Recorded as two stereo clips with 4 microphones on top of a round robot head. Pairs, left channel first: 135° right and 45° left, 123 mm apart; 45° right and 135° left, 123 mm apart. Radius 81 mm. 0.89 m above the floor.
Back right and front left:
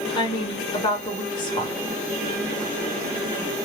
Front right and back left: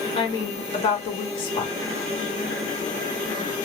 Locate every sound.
0.1 s a woman speaking: 90° right, 1.3 m